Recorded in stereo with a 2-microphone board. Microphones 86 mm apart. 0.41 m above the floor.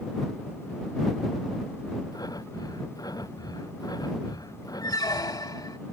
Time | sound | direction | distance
2.1 | breathing | 45° left (ahead or behind) | ?
4.8 | a squeak | 50° left (ahead or behind) | ?